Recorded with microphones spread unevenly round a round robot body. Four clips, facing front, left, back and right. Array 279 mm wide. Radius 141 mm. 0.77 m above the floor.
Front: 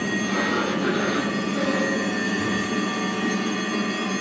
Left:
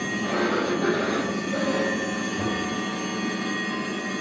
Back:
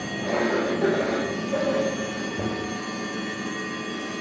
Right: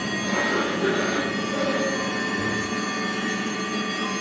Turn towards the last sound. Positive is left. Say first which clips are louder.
# left 1 dB, back 4 dB
turn(degrees=180)